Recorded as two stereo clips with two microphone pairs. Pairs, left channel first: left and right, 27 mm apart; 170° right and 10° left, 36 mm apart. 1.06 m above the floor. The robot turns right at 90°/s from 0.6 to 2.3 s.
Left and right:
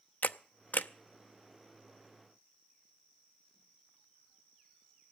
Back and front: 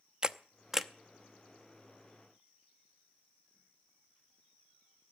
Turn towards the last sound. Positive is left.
turn(degrees=-125)